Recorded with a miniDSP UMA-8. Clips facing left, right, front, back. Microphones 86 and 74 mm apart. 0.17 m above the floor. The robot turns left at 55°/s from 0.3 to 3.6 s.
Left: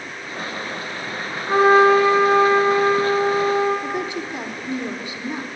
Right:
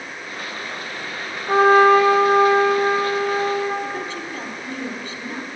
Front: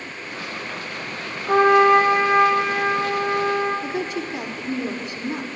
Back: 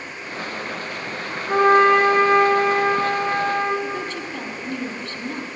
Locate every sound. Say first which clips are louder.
1.5 s a trumpet: right 1 dB, even; 30° right, 3.5 m; by 3.7 s 145° right, 3.5 m
3.8 s a woman speaking: left 2 dB, front 1 dB; 45° left, 1.1 m